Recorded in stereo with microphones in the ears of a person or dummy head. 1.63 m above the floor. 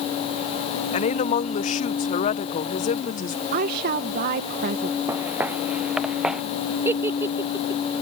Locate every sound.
0.9 s a woman speaking: 40° left (ahead or behind)
3.5 s a woman speaking: 50° right (ahead or behind)
5.1 s footsteps: 15° right (ahead or behind); by 6.4 s centre (ahead or behind)
6.8 s a giggle: 10° right (ahead or behind)